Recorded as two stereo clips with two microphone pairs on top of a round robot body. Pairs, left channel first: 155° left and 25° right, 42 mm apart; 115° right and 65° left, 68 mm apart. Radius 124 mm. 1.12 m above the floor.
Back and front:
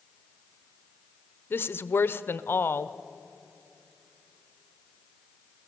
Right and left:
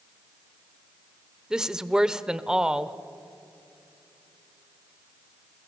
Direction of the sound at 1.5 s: 140° left.